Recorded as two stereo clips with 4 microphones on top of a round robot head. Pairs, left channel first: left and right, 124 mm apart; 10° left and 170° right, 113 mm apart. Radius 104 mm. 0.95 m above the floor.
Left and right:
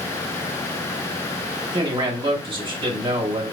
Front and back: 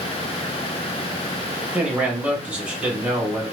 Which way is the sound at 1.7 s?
100° right.